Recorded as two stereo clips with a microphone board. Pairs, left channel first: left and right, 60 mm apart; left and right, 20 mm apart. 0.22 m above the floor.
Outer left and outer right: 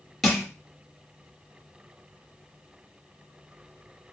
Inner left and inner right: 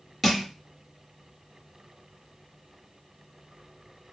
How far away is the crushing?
About 2 m.